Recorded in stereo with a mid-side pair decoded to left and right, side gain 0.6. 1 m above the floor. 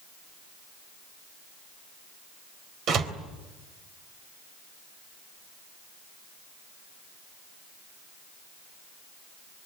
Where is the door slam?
55° right, 3.5 m.